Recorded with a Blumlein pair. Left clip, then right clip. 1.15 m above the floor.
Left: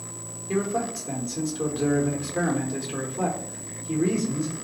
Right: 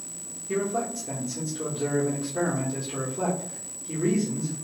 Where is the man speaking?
10° left, 1.0 m.